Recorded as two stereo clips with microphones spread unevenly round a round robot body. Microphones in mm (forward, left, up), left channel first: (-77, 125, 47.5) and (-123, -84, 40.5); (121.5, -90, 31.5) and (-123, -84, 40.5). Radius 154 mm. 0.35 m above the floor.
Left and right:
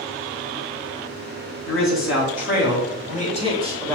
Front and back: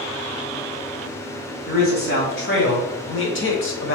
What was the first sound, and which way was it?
A man speaking, 55° left.